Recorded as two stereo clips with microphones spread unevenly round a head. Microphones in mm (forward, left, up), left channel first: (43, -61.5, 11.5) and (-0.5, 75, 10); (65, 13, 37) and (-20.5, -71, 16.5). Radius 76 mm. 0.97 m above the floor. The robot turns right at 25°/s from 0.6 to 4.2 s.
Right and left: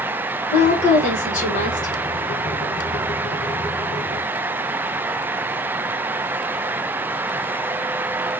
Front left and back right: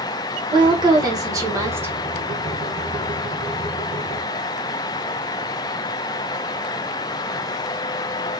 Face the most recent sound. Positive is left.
turn(degrees=-15)